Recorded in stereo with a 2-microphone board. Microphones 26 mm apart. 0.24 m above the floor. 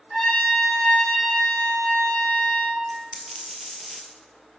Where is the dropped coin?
10° left (ahead or behind), 1.2 m.